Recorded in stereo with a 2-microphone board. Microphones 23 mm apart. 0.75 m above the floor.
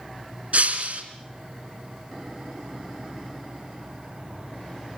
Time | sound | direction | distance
0.5 | breaking glass | 70° right (ahead or behind) | 4 m